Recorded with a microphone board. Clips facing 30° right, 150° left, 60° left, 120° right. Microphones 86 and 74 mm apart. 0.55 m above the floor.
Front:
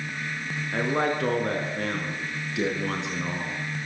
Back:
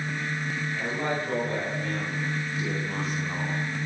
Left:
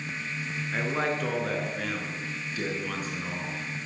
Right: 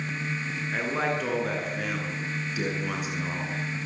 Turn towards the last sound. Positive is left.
turn(degrees=-45)